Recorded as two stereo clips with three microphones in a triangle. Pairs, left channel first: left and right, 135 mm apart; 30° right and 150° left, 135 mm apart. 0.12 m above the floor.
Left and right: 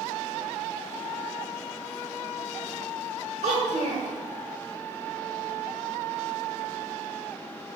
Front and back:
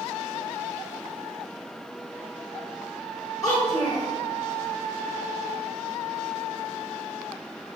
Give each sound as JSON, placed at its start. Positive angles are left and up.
{"t": 3.4, "sound": "a child speaking", "azimuth_deg": -85, "distance_m": 1.6}